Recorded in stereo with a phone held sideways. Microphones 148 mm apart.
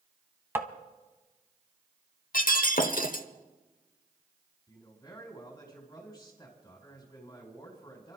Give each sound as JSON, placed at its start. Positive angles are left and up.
{"t": 0.6, "sound": "tapping", "side_deg": -15, "distance_m": 1.2}
{"t": 2.3, "sound": "breaking glass", "side_deg": 65, "distance_m": 1.0}
{"t": 4.7, "sound": "a man speaking", "side_deg": 25, "distance_m": 5.5}